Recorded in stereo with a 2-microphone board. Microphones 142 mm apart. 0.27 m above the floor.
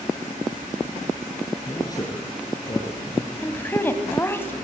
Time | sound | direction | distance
1.7 | a man speaking | 25° left (ahead or behind) | 3.5 m
3.4 | a woman speaking | 15° left (ahead or behind) | 2.5 m